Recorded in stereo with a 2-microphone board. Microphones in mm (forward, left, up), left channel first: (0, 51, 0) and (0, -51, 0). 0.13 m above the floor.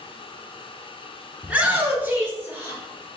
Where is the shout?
10° right (ahead or behind), 1.2 m; by 2.8 s 20° right (ahead or behind), 2.5 m.